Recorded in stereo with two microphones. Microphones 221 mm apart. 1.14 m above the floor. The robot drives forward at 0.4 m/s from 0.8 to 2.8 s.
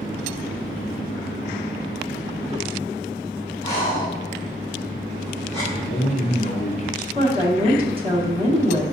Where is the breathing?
20° right (ahead or behind), 1.8 m.